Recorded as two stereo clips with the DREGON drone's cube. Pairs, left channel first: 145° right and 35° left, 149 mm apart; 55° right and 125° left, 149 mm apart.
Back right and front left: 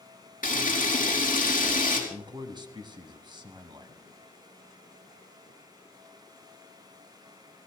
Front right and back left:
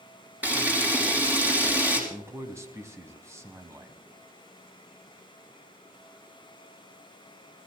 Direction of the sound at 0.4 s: 160° right.